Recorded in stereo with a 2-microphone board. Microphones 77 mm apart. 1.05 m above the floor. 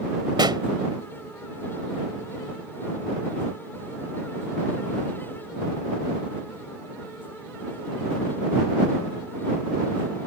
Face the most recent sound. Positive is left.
turn(degrees=-75)  # may be behind; listen again after turning